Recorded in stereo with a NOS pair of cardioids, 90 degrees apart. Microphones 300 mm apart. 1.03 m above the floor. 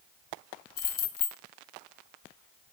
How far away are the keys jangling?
About 0.6 m.